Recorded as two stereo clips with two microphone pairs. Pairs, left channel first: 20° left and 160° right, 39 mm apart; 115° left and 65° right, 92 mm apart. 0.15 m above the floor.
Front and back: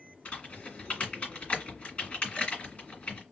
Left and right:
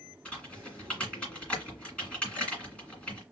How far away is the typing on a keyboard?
About 2 m.